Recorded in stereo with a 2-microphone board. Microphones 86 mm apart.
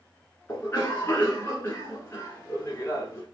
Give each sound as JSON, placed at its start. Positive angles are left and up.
{"t": 0.5, "sound": "a cough", "side_deg": 30, "distance_m": 1.3}